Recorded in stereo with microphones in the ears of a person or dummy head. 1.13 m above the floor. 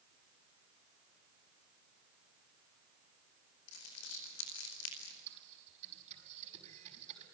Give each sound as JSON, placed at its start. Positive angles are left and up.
{"t": 3.7, "sound": "crumpling", "side_deg": 85, "distance_m": 5.0}
{"t": 5.3, "sound": "typing on a keyboard", "side_deg": -35, "distance_m": 5.0}